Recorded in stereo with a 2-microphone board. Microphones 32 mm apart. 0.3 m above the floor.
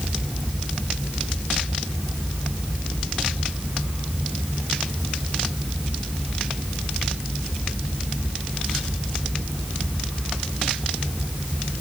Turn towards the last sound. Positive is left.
No sound to turn to.